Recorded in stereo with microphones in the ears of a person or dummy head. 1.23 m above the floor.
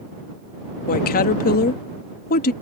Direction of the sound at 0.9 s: 55° left (ahead or behind).